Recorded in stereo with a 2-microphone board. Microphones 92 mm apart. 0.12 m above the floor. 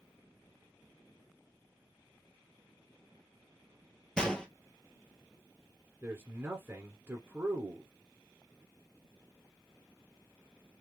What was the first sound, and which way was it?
A gunshot, 10° left (ahead or behind).